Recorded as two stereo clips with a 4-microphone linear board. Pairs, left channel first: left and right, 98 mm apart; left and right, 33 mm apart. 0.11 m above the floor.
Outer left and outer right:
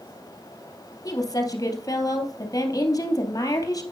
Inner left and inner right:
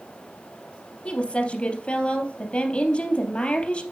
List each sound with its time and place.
1.1 s a woman speaking: 35° left (ahead or behind), 3 m